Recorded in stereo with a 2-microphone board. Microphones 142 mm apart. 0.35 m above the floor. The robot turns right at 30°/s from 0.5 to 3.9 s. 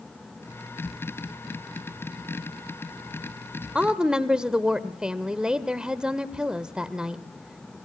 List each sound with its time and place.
3.8 s a woman speaking: 10° right (ahead or behind), 0.9 m; by 7.8 s 5° right (ahead or behind), 0.9 m